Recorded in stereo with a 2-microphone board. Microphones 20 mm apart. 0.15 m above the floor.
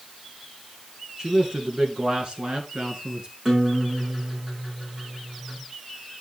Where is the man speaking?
40° right (ahead or behind), 1.9 m; by 3.3 s 45° right (ahead or behind), 2.5 m.